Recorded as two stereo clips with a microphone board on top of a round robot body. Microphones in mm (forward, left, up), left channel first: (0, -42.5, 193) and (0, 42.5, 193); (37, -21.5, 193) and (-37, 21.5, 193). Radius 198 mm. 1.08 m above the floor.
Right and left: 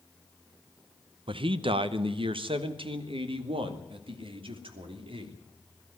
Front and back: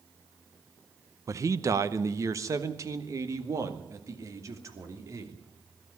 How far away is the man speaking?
About 0.9 m.